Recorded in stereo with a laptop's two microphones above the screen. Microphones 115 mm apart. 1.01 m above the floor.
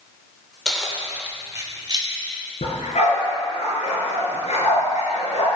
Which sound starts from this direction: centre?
Keys jangling, at 0.7 s.